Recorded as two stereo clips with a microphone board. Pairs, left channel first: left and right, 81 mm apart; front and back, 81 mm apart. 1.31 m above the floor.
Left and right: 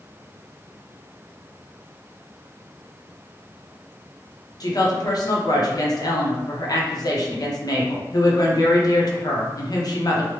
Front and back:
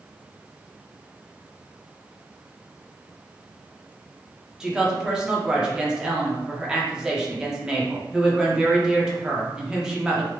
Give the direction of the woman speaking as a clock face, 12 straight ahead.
9 o'clock.